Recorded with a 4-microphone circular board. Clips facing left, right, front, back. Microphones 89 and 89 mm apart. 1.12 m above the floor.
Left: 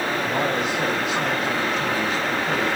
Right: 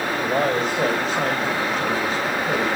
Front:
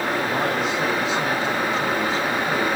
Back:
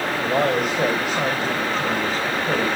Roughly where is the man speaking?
Behind right.